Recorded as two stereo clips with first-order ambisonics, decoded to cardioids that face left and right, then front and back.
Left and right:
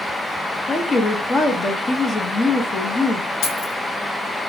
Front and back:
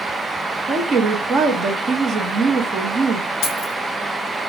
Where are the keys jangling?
45° left, 1.9 m.